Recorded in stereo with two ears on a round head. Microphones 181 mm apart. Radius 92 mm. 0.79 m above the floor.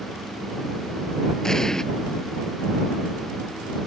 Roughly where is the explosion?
Centre.